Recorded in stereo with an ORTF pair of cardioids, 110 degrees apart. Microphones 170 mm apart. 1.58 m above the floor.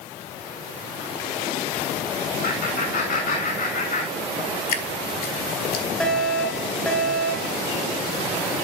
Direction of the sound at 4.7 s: 60° left.